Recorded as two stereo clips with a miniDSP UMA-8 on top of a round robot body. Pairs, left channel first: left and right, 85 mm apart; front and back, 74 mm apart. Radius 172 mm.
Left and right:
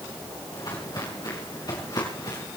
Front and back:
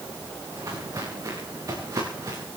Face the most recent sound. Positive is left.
turn(degrees=135)